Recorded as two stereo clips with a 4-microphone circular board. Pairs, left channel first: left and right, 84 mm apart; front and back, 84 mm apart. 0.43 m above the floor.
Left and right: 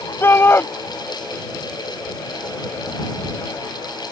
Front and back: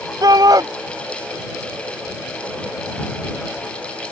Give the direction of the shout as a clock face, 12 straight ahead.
7 o'clock.